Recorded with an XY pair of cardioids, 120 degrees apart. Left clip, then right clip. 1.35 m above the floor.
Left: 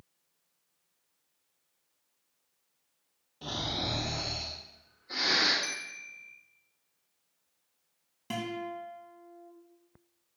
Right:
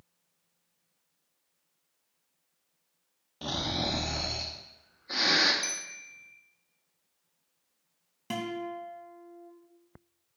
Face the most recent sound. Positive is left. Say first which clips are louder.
# right 1 dB
turn(degrees=-20)